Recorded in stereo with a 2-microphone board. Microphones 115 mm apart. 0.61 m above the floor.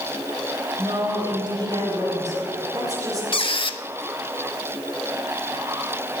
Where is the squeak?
45° left (ahead or behind), 0.6 m.